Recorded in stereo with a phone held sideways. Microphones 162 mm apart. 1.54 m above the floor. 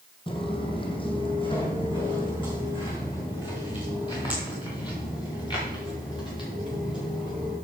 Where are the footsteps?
30° left (ahead or behind), 2.5 m.